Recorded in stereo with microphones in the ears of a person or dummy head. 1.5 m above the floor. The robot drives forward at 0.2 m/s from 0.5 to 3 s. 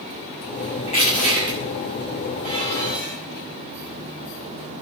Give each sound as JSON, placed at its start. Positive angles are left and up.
{"t": 0.9, "sound": "crushing", "side_deg": 40, "distance_m": 7.5}
{"t": 2.4, "sound": "dishes clattering", "side_deg": 30, "distance_m": 6.0}